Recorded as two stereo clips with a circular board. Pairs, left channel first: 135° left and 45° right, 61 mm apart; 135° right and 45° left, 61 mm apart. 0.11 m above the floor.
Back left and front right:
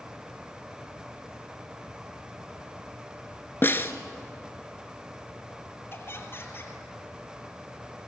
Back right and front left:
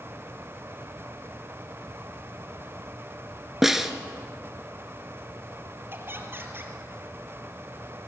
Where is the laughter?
90° left, 2.5 m.